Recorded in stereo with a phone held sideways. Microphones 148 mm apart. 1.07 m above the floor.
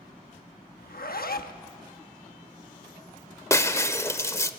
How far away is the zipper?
About 1.0 m.